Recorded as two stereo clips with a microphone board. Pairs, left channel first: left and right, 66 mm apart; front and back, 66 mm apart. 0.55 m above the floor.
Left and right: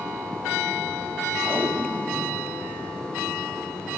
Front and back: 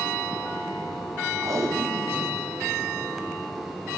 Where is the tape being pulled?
150° right, 1.2 m.